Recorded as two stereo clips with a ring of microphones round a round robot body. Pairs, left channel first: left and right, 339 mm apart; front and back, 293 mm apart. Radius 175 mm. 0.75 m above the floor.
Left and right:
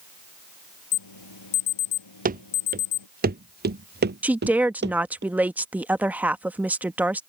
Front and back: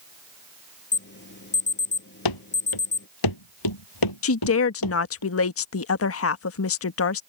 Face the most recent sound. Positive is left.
turn(degrees=-5)